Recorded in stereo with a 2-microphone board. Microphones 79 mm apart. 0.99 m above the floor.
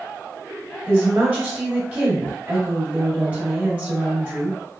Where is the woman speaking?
25° right (ahead or behind), 1.9 m.